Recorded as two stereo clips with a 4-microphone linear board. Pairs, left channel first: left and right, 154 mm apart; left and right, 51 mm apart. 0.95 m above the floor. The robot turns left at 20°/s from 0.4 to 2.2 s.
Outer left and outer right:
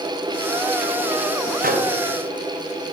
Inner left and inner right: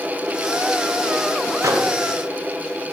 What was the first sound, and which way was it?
A microwave, 70° right (ahead or behind).